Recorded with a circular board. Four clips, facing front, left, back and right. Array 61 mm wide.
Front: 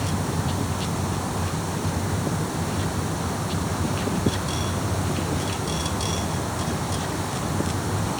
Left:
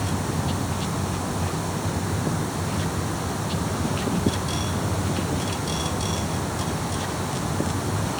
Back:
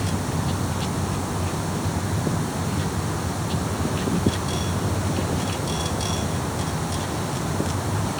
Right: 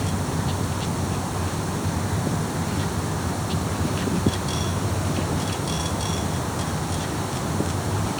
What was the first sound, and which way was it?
Only background noise.